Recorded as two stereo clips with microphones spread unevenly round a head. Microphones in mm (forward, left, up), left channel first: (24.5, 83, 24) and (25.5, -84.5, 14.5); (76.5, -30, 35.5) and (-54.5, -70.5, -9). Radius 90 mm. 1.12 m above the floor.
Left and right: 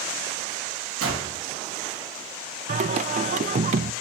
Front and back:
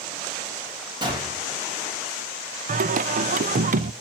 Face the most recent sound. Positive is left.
turn(degrees=-140)